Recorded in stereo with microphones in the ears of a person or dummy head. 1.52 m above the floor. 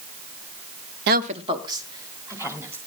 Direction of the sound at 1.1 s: 55° right (ahead or behind).